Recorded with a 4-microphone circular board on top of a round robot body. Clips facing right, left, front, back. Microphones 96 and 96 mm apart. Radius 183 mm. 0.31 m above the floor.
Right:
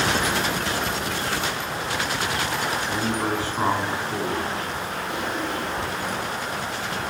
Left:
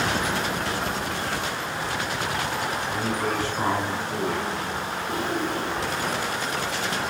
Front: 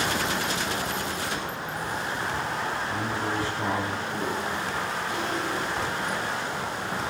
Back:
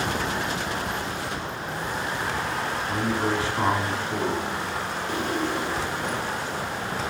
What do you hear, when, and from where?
2.9 s a man speaking: 165° right, 5 m
5.1 s a drawer: 140° left, 4 m